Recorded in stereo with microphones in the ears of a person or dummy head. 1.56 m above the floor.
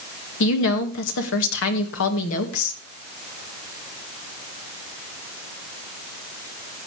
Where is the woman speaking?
70° left (ahead or behind), 2 m.